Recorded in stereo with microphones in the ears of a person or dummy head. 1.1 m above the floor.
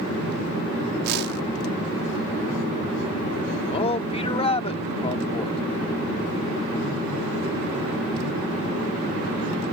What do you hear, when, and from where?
1.0 s a whoosh: 65° right (ahead or behind)
3.7 s a man speaking: 25° left (ahead or behind)